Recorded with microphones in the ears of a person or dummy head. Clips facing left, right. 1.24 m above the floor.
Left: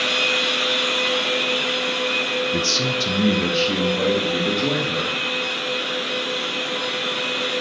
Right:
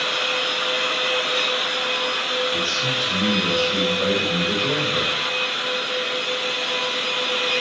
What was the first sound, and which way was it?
A man speaking, 75° left (ahead or behind).